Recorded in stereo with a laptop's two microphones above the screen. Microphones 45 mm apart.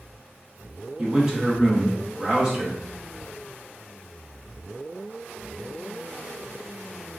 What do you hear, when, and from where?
1.0 s a man speaking: 15° right (ahead or behind), 0.6 m
3.0 s whispering: 5° left (ahead or behind), 0.8 m